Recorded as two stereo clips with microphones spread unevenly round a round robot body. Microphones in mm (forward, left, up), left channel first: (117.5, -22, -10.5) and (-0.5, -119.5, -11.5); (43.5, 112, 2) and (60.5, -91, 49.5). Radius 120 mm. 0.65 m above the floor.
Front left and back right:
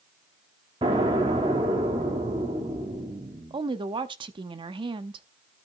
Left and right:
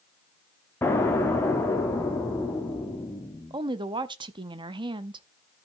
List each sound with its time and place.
0.8 s an explosion: 160° left, 1.3 m
3.5 s a woman speaking: 160° right, 0.6 m